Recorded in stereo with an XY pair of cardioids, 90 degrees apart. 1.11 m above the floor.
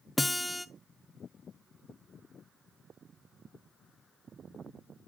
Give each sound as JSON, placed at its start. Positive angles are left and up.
{"t": 0.2, "sound": "a guitar", "azimuth_deg": 15, "distance_m": 0.9}